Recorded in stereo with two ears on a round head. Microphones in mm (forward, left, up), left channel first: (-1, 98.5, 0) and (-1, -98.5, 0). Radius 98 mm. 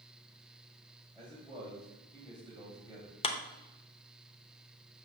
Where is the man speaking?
5° left (ahead or behind), 2.5 m.